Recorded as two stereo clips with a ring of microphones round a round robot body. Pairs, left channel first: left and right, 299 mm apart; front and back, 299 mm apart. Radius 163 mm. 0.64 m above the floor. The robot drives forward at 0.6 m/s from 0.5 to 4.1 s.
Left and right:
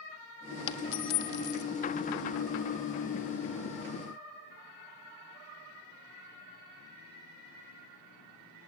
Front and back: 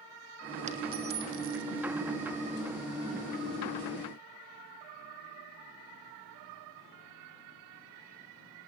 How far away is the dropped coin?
About 1.5 m.